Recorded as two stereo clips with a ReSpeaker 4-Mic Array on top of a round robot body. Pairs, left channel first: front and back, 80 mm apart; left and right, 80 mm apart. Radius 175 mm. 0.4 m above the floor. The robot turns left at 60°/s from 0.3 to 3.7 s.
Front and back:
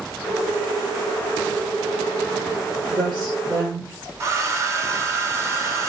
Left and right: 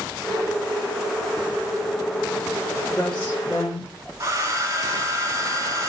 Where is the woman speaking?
175° left, 1.6 m; by 3.9 s 130° left, 1.6 m.